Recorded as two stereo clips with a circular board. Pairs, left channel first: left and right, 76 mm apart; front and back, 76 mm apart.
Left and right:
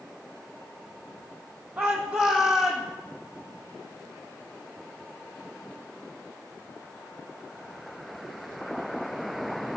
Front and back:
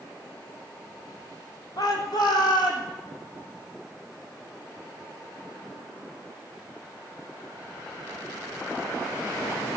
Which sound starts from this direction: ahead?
A shout, at 1.8 s.